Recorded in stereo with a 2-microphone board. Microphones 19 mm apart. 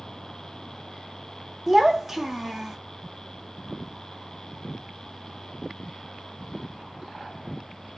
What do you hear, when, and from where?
1.7 s a child speaking: 10° right (ahead or behind), 0.6 m